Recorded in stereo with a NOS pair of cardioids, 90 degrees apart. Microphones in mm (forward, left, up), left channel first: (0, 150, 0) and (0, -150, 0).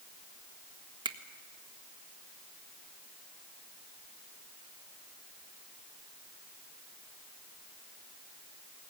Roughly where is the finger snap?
Ahead.